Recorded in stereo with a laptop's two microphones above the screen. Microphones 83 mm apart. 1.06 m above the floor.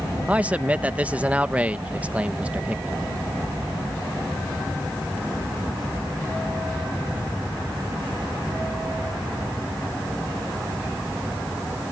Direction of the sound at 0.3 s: 15° right (ahead or behind).